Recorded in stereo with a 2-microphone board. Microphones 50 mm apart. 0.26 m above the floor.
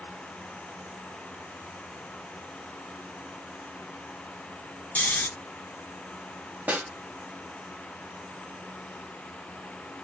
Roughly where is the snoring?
Left.